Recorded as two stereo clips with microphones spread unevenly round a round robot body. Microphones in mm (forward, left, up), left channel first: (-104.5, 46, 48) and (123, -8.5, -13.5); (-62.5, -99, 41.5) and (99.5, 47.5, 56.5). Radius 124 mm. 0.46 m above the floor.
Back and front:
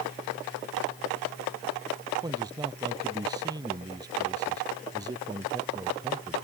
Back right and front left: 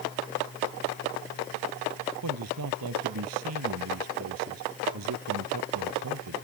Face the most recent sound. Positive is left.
turn(degrees=60)